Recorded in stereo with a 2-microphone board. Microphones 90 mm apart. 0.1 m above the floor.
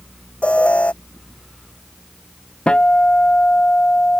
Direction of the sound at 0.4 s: 15° left (ahead or behind).